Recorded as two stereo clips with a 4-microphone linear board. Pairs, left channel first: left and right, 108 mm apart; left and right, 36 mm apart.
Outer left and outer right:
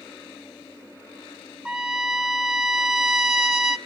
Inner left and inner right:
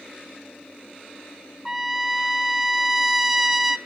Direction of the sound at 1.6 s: 5° right (ahead or behind).